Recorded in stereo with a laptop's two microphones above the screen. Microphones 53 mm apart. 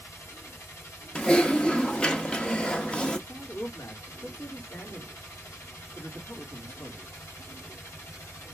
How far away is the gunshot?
No gunshot in this recording.